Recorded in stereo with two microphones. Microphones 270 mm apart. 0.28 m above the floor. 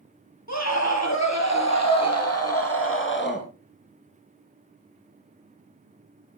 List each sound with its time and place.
0.5 s a scream: 80° left, 5.5 m; by 3.5 s 40° left (ahead or behind), 3.5 m